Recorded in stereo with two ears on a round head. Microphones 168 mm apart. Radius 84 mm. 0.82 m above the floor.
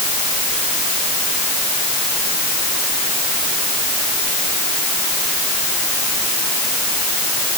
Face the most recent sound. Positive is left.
No sound to turn to.